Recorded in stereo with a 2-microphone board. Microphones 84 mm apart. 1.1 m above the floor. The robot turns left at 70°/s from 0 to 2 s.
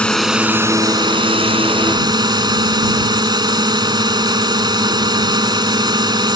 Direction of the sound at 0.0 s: 15° left.